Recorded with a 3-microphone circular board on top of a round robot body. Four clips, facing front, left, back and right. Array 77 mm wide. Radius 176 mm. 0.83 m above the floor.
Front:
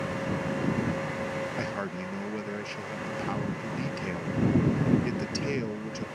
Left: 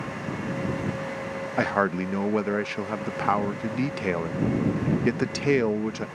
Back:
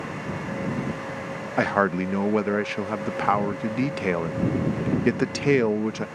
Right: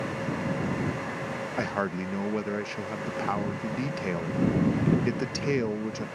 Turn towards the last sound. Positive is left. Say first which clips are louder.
# left 7 dB, back 11 dB
turn(degrees=150)